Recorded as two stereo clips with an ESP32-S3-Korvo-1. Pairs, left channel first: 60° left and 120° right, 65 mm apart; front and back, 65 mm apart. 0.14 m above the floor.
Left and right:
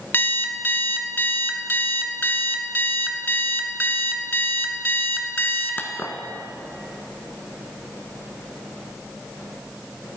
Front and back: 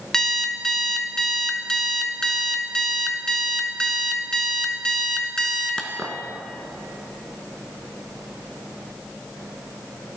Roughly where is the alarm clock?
Left.